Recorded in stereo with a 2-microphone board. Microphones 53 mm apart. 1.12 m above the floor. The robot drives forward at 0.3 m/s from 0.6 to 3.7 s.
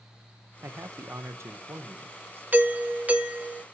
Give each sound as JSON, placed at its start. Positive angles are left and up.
{"t": 0.6, "sound": "a man speaking", "side_deg": -65, "distance_m": 0.7}
{"t": 2.5, "sound": "a doorbell", "side_deg": -30, "distance_m": 0.8}